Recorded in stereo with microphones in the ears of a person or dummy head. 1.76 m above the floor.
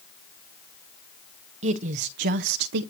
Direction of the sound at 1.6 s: 35° right (ahead or behind).